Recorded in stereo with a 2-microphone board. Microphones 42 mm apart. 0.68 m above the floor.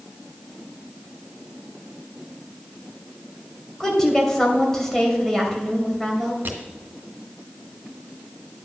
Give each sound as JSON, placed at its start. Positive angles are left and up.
{"t": 3.8, "sound": "a woman speaking", "side_deg": 10, "distance_m": 2.5}
{"t": 6.5, "sound": "crushing", "side_deg": -55, "distance_m": 2.0}